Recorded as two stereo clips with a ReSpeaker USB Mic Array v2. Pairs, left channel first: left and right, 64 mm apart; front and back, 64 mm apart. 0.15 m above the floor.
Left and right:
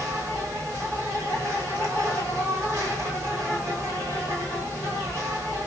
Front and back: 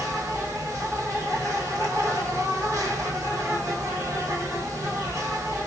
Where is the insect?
135° right, 2.5 m.